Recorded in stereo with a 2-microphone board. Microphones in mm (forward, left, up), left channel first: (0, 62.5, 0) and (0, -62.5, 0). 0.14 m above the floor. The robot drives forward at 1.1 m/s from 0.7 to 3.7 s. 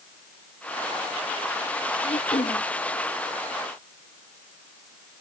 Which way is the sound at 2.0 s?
55° left (ahead or behind).